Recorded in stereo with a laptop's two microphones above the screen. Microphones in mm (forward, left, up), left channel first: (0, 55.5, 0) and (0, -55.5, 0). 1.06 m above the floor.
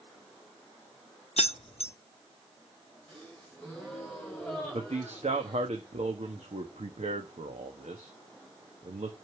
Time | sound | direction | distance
1.4 | keys jangling | 70° left (ahead or behind) | 0.7 m
3.1 | a gasp | 10° left (ahead or behind) | 5 m
4.7 | a man speaking | 85° right | 1.2 m